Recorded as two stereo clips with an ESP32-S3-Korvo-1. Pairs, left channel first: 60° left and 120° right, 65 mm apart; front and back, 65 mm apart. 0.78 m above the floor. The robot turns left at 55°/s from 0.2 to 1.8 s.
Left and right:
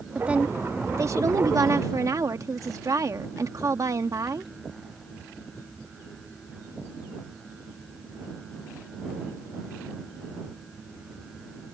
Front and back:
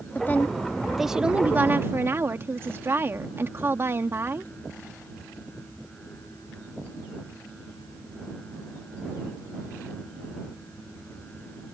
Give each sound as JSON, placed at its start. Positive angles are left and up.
{"t": 0.1, "sound": "a woman speaking", "azimuth_deg": -50}